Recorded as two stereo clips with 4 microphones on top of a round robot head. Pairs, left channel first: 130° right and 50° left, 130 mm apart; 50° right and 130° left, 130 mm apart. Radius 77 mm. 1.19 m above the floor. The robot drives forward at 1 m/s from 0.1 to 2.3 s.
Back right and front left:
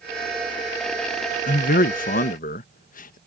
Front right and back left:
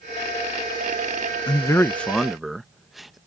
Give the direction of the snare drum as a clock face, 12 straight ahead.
No snare drum in this recording.